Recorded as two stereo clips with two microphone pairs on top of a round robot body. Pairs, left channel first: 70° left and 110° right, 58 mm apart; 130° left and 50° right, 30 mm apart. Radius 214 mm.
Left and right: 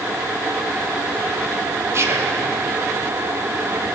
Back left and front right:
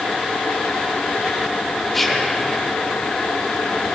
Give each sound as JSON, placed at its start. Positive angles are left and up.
{"t": 1.9, "sound": "whispering", "azimuth_deg": -145, "distance_m": 2.5}